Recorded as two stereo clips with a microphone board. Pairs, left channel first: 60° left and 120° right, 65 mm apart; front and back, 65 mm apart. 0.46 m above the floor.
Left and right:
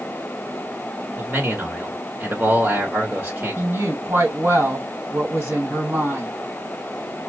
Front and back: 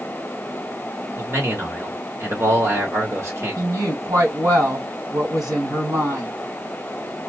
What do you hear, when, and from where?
1.2 s a man speaking: 165° right, 1.6 m
3.6 s a woman speaking: 175° right, 2.5 m